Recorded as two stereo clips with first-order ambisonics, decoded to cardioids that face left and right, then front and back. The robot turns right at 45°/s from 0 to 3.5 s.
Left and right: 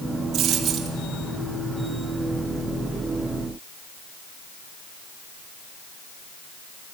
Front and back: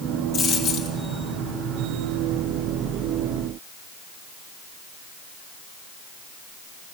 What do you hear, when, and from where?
0.3 s a dropped coin: 50° right, 2.5 m; by 1.0 s 20° right, 2.5 m